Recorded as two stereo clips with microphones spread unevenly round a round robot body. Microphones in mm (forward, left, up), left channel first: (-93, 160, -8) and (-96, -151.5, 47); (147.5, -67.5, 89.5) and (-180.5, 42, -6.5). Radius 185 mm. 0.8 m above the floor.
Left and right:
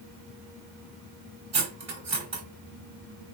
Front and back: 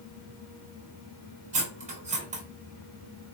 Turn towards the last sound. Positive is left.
turn(degrees=-125)